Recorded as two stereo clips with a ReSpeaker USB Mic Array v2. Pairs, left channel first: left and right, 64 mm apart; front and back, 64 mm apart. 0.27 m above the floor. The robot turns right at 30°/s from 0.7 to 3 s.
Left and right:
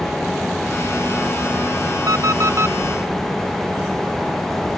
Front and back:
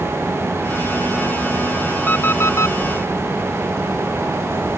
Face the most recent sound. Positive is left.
turn(degrees=-35)